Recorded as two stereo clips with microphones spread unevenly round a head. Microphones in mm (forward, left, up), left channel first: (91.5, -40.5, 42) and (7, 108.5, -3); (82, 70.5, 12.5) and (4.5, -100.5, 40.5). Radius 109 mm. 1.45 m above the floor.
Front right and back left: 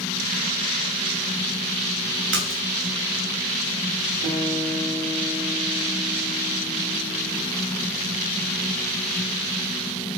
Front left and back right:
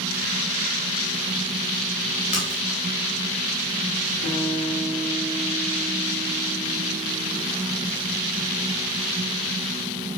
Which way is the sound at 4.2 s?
110° left.